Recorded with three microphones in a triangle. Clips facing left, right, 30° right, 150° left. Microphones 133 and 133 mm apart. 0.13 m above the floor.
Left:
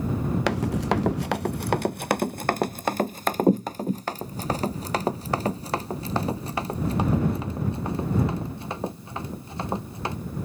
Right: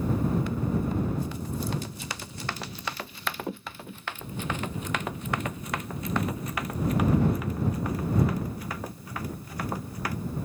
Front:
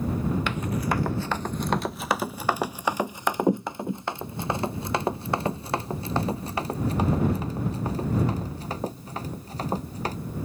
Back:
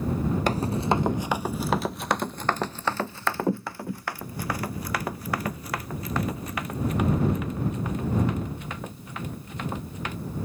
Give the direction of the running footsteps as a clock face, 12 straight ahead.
9 o'clock.